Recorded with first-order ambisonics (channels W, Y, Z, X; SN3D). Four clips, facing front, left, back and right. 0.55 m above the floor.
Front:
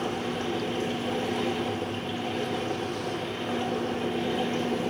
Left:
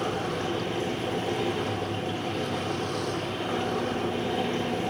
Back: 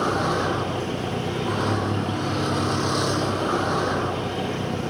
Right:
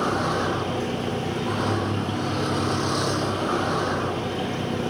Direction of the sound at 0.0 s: 145° right.